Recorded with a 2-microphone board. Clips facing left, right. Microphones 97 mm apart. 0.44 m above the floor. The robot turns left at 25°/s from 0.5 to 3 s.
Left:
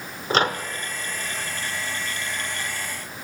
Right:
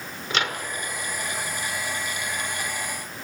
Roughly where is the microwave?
Left.